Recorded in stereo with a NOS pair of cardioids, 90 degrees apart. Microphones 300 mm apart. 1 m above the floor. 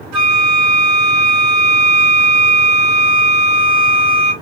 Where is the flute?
65° right, 1.9 m.